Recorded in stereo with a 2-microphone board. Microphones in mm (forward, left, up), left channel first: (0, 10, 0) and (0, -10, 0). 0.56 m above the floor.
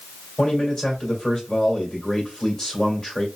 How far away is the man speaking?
About 2 m.